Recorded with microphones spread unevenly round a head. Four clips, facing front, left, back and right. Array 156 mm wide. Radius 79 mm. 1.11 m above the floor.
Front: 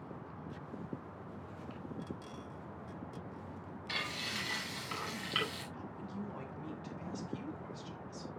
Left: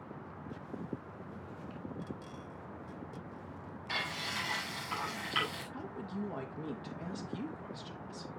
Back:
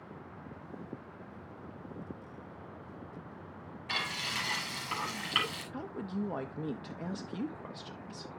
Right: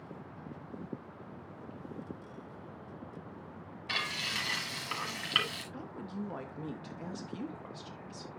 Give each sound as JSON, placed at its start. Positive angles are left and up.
{"t": 3.9, "sound": "frying", "azimuth_deg": -110, "distance_m": 5.5}
{"t": 5.7, "sound": "a woman speaking", "azimuth_deg": -170, "distance_m": 1.8}